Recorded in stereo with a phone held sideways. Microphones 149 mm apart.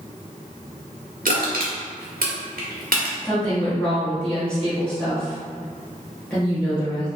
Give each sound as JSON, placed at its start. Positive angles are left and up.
{"t": 1.2, "sound": "crushing", "side_deg": -75, "distance_m": 1.2}
{"t": 3.2, "sound": "a woman speaking", "side_deg": 10, "distance_m": 1.3}